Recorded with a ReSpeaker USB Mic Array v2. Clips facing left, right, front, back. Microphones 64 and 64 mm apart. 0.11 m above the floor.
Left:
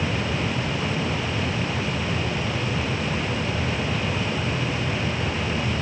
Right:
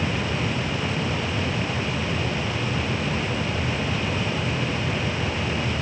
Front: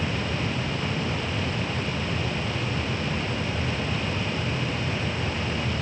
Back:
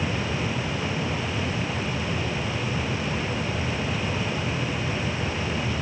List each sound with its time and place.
Only background noise.